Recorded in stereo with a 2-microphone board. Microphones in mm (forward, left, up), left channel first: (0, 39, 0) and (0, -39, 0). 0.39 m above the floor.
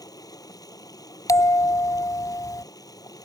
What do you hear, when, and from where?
0.0 s running water: 55° left (ahead or behind)
1.3 s a bell: 50° left (ahead or behind)